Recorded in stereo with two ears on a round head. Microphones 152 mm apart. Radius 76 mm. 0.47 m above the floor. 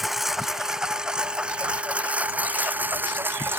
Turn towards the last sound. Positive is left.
turn(degrees=-15)  # may be behind; listen again after turning